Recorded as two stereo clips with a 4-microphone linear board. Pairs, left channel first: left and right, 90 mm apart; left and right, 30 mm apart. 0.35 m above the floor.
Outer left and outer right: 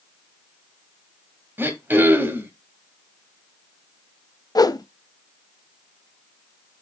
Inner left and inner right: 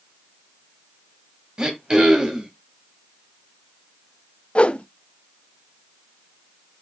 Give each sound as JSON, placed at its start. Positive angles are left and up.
{"t": 1.6, "sound": "throat clearing", "side_deg": -25, "distance_m": 1.7}
{"t": 4.5, "sound": "a whoosh", "side_deg": 45, "distance_m": 0.5}